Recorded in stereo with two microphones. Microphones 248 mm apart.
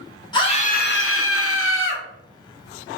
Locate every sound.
0.3 s a scream: 20° left (ahead or behind), 0.8 m; by 2.0 s 50° left (ahead or behind), 1.0 m